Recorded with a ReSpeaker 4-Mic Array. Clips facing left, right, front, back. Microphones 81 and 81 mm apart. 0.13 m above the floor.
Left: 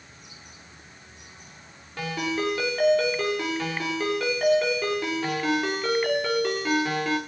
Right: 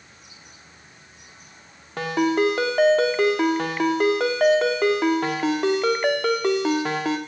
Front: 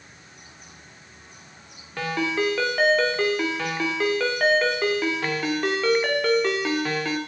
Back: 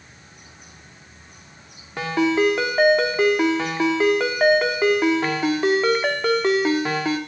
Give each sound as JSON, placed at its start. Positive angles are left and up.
{"t": 2.0, "sound": "a ringtone", "azimuth_deg": -110, "distance_m": 4.5}